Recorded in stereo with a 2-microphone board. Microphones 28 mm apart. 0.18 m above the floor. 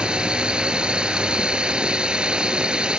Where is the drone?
30° right (ahead or behind).